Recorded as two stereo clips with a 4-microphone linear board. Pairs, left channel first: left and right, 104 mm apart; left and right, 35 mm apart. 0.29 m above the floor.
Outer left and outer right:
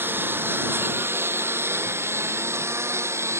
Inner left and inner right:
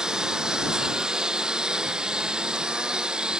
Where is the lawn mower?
20° right (ahead or behind); by 3.4 s 25° right (ahead or behind).